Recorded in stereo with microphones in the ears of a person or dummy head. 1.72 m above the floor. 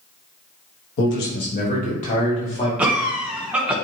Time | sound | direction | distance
1.0 | a man speaking | 70° left (ahead or behind) | 1.2 m
2.8 | a cough | 10° right (ahead or behind) | 1.1 m